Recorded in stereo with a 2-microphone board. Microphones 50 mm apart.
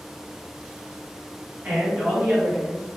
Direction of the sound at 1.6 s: 35° right (ahead or behind).